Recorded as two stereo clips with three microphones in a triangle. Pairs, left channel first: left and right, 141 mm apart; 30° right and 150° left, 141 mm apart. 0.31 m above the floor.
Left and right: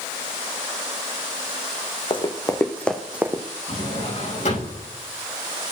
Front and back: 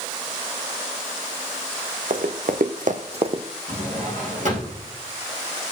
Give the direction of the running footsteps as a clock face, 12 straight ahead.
7 o'clock.